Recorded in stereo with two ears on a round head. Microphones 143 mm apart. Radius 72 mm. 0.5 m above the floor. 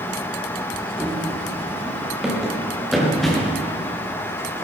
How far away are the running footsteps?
About 3.5 m.